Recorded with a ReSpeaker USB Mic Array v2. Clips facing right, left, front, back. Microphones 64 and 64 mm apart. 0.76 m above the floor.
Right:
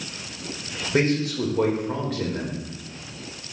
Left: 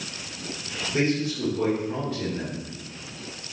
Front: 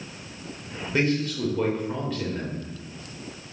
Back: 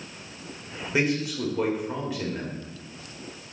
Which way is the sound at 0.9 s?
100° right.